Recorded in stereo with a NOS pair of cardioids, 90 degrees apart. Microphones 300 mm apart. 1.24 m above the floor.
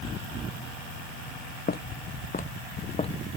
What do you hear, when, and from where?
1.7 s footsteps: 30° left; by 3.2 s 20° left